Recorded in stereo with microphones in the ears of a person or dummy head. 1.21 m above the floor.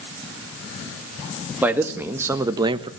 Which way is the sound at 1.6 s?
10° right (ahead or behind).